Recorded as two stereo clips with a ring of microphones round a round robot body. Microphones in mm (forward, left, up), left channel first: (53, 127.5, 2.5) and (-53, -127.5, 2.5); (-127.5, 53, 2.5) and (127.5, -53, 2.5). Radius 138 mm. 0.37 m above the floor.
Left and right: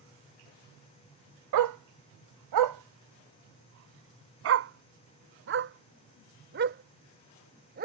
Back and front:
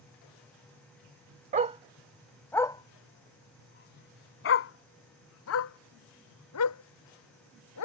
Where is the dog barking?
85° right; by 7.8 s 170° right.